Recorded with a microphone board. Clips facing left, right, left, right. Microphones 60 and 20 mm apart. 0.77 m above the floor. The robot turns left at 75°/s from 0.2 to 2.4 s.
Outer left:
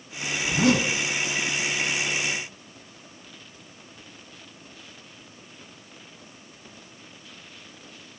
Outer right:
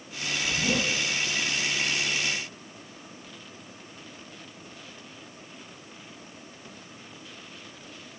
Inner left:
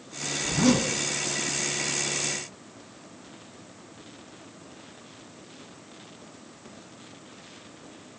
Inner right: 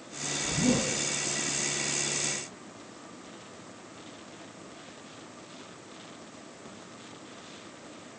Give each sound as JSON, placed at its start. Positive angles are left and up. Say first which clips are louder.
{"t": 0.4, "sound": "a zipper", "louder": "outer left 7 dB, inner left 5 dB", "azimuth_deg": 105, "distance_m": 5.0}